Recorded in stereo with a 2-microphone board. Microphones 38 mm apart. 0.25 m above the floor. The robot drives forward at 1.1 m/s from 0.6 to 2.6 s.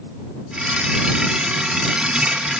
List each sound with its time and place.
Only background noise.